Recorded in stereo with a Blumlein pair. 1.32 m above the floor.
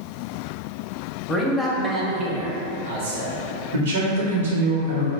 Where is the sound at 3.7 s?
65° right, 0.9 m.